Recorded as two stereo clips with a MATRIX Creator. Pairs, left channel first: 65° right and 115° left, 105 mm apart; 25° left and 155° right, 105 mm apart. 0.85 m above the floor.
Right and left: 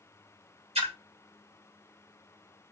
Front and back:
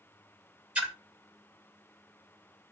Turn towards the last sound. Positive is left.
turn(degrees=125)